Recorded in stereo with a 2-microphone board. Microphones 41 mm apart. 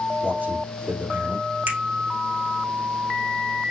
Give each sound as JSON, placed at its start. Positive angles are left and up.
{"t": 0.2, "sound": "a man speaking", "side_deg": -50, "distance_m": 3.0}
{"t": 1.7, "sound": "a finger snap", "side_deg": -45, "distance_m": 2.0}